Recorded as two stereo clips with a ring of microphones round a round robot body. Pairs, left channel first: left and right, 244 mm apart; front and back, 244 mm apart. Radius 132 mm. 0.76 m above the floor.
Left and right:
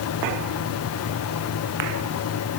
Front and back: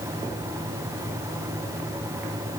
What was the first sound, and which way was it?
Only background noise.